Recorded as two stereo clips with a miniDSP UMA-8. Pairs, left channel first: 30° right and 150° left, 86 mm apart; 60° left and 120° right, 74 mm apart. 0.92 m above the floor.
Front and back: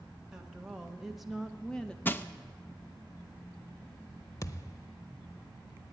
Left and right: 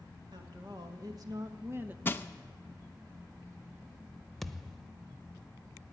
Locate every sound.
0.3 s a woman speaking: 130° right, 2 m; by 1.9 s 95° right, 0.8 m
2.0 s crushing: 20° left, 0.6 m
4.4 s a thud: 25° right, 0.7 m